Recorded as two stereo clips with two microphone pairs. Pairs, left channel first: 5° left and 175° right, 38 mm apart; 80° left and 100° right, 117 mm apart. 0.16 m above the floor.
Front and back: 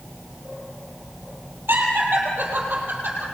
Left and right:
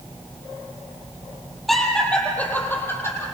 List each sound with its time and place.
1.7 s laughter: 170° left, 4.5 m; by 3.2 s 145° left, 5.5 m